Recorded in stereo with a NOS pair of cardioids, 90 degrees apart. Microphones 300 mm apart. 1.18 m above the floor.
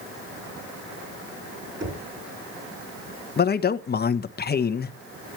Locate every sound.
1.8 s knocking: 40° right, 9 m
3.4 s a man speaking: 35° left, 1.2 m